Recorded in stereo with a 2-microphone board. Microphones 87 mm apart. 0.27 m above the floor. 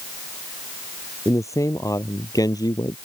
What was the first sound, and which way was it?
A man speaking, 35° left (ahead or behind).